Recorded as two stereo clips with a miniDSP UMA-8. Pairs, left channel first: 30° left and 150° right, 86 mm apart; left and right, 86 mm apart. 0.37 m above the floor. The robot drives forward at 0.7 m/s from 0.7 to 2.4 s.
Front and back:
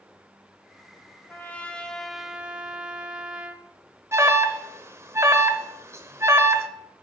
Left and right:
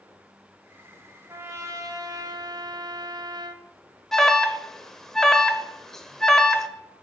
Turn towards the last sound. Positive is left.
turn(degrees=175)